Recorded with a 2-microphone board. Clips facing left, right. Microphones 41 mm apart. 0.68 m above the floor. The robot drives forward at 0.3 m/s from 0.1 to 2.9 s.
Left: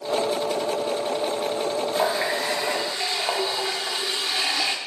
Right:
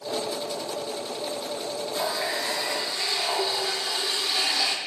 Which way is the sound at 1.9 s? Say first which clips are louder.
Left 3 dB; 35° left (ahead or behind).